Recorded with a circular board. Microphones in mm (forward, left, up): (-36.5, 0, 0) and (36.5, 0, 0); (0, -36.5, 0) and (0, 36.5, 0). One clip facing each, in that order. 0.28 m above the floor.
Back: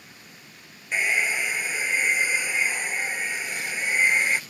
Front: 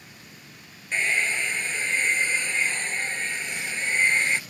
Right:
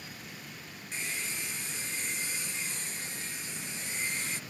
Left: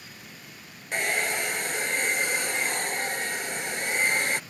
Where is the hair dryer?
100° left.